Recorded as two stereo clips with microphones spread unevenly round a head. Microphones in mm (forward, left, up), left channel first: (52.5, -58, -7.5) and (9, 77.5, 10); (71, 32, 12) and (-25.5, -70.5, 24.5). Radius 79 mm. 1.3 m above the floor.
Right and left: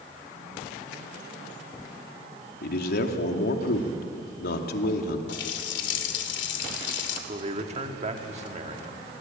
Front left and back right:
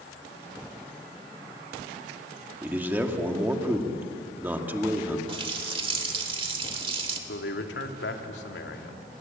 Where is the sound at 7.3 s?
65° left, 2.5 m.